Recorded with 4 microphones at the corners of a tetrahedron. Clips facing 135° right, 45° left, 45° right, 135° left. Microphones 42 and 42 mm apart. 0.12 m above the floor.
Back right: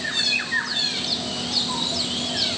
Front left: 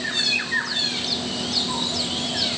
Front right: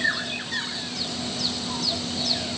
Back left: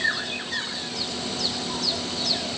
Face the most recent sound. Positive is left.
No sound to turn to.